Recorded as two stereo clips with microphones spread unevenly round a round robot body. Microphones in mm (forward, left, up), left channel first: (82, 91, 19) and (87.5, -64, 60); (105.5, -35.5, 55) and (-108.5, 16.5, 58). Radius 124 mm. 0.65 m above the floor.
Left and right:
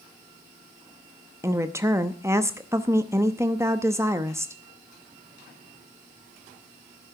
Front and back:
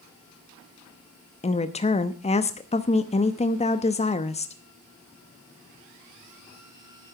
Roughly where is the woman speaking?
Ahead.